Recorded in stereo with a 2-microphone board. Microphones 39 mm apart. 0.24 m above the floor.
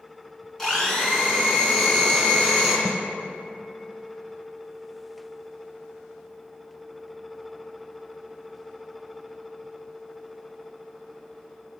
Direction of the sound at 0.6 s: 10° left (ahead or behind).